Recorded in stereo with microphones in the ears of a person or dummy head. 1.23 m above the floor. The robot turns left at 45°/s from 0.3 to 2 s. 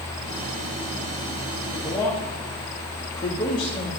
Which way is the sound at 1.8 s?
15° left (ahead or behind).